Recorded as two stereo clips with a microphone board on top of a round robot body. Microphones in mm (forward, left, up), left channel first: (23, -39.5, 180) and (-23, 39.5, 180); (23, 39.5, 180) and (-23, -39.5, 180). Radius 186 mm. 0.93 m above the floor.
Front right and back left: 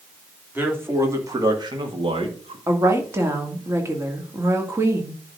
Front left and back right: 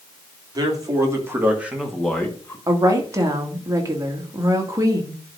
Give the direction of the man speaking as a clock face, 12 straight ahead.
6 o'clock.